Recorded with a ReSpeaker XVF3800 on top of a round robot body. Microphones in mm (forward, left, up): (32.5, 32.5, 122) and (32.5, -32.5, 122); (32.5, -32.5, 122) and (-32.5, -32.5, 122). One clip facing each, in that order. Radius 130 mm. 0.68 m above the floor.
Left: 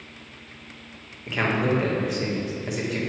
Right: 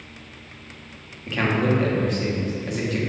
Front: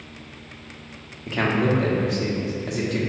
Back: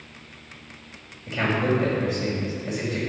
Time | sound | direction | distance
1.3 | a man speaking | 10° left | 1.6 m